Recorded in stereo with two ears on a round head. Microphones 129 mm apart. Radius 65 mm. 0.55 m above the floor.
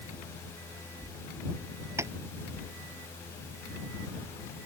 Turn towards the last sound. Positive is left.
turn(degrees=-20)  # may be behind; listen again after turning